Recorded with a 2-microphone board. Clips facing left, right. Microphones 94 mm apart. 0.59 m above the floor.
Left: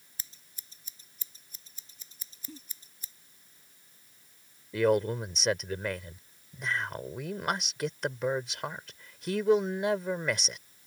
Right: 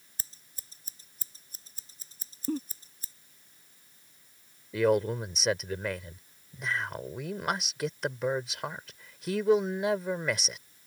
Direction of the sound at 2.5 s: 55° right (ahead or behind).